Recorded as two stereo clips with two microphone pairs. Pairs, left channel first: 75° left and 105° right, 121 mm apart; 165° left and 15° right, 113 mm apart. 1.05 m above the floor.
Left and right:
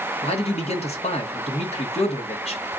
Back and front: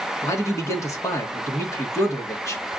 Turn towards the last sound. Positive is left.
turn(degrees=105)